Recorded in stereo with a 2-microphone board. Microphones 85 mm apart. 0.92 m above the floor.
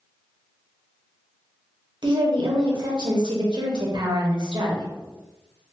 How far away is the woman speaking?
About 0.9 m.